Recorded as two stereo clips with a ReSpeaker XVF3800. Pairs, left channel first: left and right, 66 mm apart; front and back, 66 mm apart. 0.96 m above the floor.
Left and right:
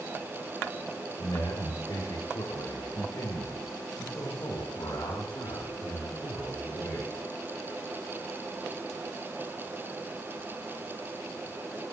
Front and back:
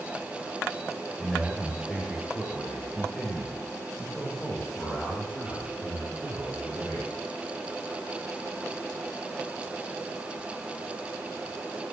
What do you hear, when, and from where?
1.2 s a man speaking: 85° left, 3 m; by 7.1 s 70° left, 8 m